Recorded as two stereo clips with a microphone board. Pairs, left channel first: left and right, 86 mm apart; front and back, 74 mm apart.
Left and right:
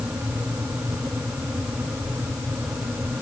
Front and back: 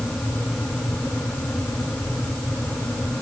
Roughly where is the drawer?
No drawer in this recording.